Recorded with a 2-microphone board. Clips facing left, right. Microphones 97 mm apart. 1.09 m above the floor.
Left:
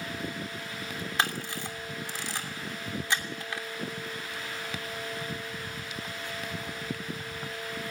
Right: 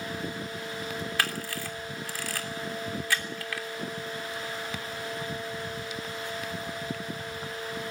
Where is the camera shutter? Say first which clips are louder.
Left 4 dB; 25° left (ahead or behind), 3 m.